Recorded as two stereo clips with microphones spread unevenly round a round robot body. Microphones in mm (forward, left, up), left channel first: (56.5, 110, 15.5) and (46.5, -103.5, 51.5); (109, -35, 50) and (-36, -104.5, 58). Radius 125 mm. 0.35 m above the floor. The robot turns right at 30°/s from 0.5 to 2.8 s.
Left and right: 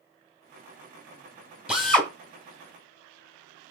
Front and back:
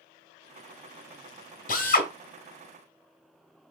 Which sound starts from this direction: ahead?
A drill, at 1.7 s.